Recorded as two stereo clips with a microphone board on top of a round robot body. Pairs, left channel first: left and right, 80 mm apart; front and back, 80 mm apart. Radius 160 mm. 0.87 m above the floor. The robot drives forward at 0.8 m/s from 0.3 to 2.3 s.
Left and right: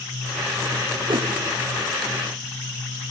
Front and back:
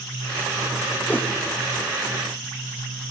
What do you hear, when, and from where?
1.1 s a whoosh: 70° right, 1.1 m; by 1.3 s 80° right, 1.0 m